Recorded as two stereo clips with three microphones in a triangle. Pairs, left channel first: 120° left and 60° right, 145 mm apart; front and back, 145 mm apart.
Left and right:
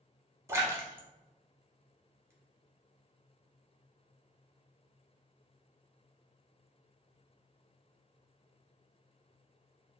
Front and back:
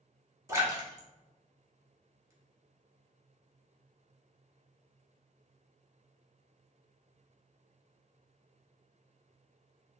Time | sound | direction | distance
0.5 | a splash | 120° right | 0.9 m